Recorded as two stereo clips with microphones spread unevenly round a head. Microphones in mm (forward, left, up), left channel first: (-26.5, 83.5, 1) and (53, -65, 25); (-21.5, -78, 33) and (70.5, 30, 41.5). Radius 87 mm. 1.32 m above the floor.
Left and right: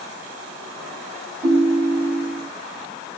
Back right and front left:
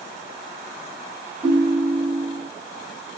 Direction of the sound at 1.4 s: 20° right.